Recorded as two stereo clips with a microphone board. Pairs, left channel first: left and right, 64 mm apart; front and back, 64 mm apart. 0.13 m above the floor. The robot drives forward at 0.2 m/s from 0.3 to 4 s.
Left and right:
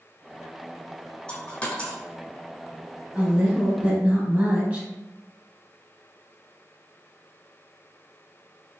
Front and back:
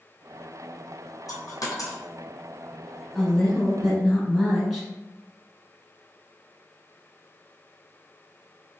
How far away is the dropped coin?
About 1.0 m.